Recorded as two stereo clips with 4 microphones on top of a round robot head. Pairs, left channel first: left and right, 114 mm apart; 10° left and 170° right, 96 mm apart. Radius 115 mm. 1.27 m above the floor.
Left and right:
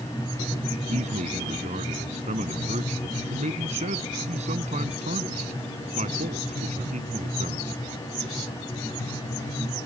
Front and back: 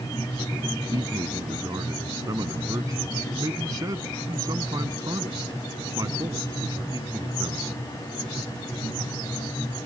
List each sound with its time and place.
0.9 s a man speaking: 110° right